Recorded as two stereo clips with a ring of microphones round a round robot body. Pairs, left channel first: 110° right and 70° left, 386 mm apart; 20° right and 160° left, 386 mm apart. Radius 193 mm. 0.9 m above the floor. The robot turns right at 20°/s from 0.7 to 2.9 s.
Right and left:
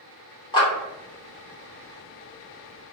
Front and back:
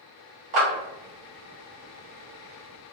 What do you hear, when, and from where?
0.5 s a clap: 170° left, 1.9 m